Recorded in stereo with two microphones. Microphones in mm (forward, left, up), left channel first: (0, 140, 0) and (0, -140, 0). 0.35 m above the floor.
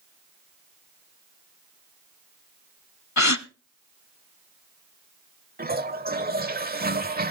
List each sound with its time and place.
3.2 s a gasp: 75° left (ahead or behind), 0.7 m
5.6 s a toilet flushing: 35° right (ahead or behind), 1.1 m